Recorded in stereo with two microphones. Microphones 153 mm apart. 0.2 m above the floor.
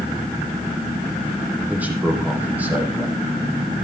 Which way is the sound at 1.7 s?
10° right (ahead or behind).